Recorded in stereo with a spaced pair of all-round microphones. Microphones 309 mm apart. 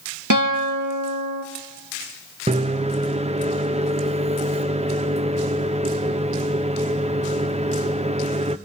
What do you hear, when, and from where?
0.3 s a guitar: 75° right (ahead or behind), 2.5 m
2.5 s a microwave: 20° right (ahead or behind), 0.6 m